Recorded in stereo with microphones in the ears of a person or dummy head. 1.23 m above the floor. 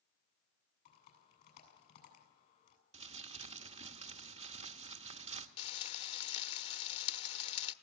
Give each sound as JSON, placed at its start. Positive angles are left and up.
{"t": 0.8, "sound": "typing on a keyboard", "side_deg": 55, "distance_m": 7.5}
{"t": 2.9, "sound": "crumpling", "side_deg": -35, "distance_m": 1.1}
{"t": 5.6, "sound": "frying", "side_deg": 35, "distance_m": 1.1}